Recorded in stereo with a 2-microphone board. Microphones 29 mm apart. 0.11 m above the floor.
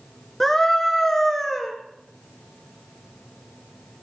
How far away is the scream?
About 1.5 m.